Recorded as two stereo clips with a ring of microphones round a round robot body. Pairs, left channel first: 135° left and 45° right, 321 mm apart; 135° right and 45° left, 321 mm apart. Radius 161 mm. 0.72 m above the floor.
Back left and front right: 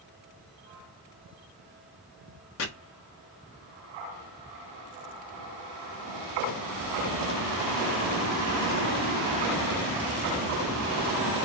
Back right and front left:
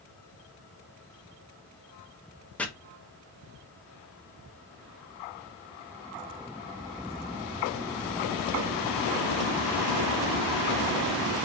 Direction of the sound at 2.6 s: 140° left.